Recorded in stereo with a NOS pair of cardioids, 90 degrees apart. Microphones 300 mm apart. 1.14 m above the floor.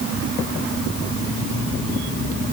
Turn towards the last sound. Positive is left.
No sound to turn to.